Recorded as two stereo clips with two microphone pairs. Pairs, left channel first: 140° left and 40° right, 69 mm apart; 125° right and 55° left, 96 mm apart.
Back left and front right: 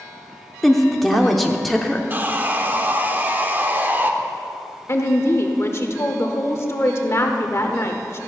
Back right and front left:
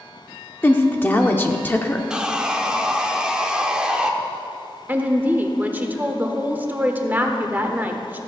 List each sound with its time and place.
0.6 s a woman speaking: 125° right, 0.8 m
2.1 s sawing: 20° right, 0.8 m
4.9 s a woman speaking: 120° left, 1.1 m